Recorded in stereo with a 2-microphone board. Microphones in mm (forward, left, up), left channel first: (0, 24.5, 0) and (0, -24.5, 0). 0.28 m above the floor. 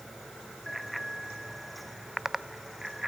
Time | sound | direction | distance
0.7 | a bicycle bell | centre (ahead or behind) | ?